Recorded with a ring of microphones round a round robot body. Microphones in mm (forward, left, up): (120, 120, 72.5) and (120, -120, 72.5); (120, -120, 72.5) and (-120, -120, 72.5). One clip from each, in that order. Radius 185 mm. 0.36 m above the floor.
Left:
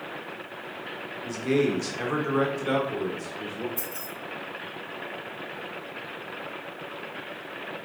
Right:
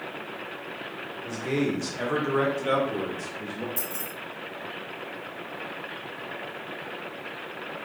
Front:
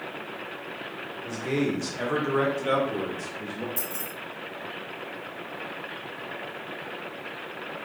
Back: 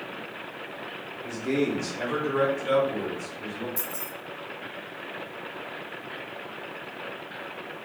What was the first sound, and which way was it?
A man speaking, 90° left.